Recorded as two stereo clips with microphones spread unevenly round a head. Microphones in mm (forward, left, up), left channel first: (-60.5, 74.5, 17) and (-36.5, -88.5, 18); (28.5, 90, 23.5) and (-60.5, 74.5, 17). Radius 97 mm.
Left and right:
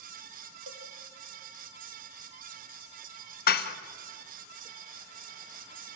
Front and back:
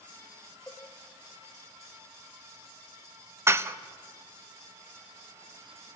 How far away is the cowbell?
About 1.4 m.